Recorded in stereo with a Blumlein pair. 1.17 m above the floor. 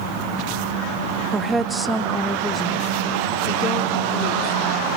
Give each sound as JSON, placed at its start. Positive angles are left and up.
{"t": 1.3, "sound": "a woman speaking", "azimuth_deg": -15, "distance_m": 1.0}